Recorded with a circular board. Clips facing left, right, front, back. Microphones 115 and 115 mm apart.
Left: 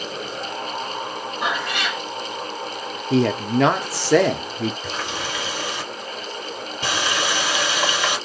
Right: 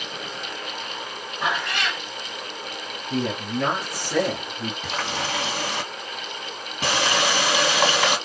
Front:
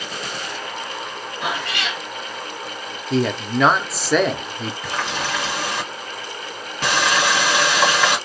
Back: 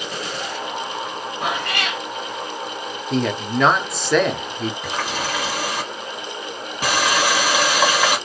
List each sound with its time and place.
1.4 s a cat meowing: 175° left, 1.4 m
3.1 s a man speaking: 90° left, 0.5 m
4.8 s a running tap: 105° right, 1.7 m